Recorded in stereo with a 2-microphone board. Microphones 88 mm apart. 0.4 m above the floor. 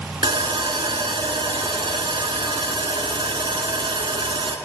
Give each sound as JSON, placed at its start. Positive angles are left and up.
{"t": 0.2, "sound": "sawing", "side_deg": -80, "distance_m": 0.8}